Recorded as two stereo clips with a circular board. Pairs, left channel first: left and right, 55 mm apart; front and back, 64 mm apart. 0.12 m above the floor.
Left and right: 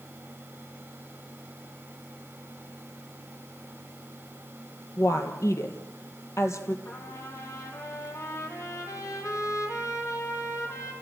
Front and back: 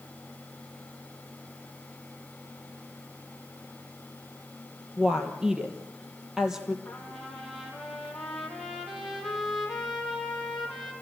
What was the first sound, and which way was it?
A woman speaking, 100° left.